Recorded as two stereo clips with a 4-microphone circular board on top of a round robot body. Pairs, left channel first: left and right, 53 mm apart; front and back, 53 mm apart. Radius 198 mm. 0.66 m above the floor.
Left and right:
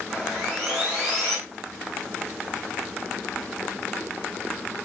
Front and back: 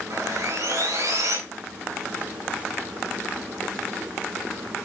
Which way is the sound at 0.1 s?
170° right.